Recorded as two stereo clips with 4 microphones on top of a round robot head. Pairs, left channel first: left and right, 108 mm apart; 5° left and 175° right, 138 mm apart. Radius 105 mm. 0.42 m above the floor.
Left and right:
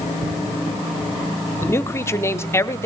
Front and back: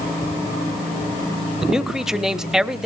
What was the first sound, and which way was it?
A man speaking, 100° left.